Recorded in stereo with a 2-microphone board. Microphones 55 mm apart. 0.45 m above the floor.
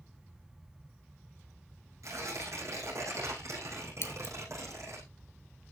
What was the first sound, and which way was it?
Tearing paper, 65° right (ahead or behind).